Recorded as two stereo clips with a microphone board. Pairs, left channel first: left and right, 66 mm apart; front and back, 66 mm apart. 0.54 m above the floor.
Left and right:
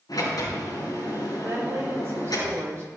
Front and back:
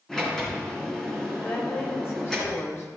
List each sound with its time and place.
0.1 s a sliding door: 85° left, 4.5 m
1.4 s a woman speaking: 45° right, 3 m